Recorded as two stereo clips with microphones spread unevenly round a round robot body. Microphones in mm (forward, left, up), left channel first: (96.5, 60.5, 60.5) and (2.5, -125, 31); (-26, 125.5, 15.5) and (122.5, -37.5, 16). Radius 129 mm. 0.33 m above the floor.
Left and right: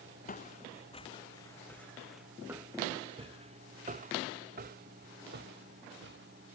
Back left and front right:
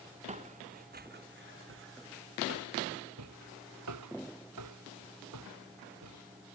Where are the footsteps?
15° left; by 6.6 s 85° right.